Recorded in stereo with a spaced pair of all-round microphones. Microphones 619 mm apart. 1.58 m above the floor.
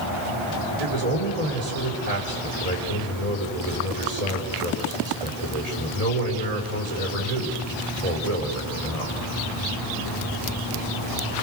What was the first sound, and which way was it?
A man speaking, 75° right (ahead or behind).